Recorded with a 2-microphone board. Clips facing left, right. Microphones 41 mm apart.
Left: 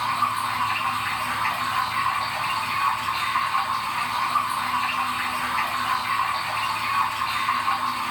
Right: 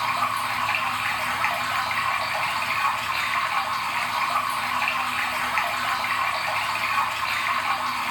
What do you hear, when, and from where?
0.0 s running water: 60° right (ahead or behind), 1.1 m